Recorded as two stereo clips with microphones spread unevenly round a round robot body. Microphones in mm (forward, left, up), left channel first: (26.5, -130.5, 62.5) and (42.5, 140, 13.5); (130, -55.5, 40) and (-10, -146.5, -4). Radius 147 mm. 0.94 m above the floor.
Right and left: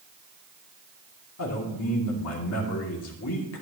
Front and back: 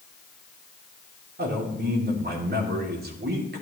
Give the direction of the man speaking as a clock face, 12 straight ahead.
4 o'clock.